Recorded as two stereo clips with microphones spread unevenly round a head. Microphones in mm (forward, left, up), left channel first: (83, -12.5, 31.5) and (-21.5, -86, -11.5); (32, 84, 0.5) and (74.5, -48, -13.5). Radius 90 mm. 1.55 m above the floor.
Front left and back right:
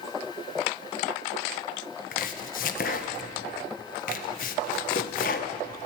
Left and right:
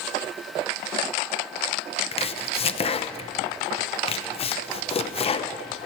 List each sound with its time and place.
2.1 s chopping: 65° left, 1.1 m